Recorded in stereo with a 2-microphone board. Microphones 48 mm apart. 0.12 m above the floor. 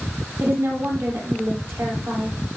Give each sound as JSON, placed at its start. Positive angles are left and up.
{"t": 0.4, "sound": "a woman speaking", "side_deg": -70, "distance_m": 3.5}